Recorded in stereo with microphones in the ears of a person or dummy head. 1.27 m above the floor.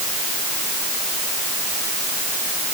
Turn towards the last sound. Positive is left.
No sound to turn to.